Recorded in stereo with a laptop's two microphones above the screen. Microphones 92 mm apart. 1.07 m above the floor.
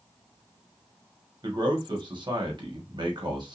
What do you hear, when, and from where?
1.4 s a man speaking: 55° right (ahead or behind), 1.0 m